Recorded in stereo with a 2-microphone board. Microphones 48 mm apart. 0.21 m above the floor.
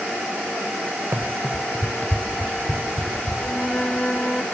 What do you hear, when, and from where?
1.1 s running footsteps: 65° right (ahead or behind), 0.7 m; by 3.3 s 45° left (ahead or behind), 2.5 m
3.4 s a flute: 20° left (ahead or behind), 1.1 m